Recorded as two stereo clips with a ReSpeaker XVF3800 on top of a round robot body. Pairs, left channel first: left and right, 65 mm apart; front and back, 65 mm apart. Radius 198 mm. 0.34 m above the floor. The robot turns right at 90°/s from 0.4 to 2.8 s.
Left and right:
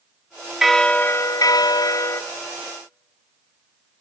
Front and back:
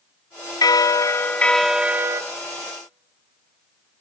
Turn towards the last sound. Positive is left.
turn(degrees=-165)